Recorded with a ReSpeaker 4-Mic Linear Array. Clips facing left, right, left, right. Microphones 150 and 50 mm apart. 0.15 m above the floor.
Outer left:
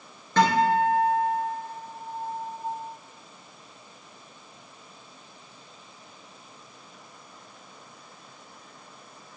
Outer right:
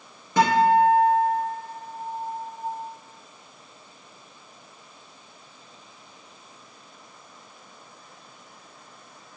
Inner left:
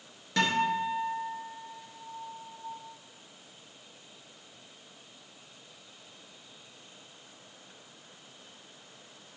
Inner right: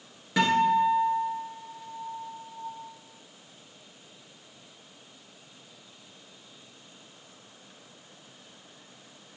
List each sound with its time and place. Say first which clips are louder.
0.4 s a guitar: outer right 3 dB, inner right 5 dB; 10° right (ahead or behind), 1.8 m